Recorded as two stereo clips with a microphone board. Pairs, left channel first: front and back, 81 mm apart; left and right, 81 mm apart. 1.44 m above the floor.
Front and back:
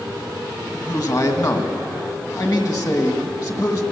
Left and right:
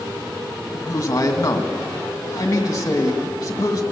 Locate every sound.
0.7 s a man speaking: 40° left, 2 m